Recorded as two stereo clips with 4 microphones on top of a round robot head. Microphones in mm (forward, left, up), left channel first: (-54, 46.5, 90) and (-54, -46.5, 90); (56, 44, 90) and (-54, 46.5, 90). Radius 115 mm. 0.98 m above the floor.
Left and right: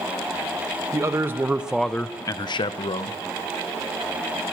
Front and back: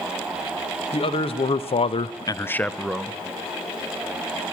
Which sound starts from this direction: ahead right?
A man speaking, at 0.9 s.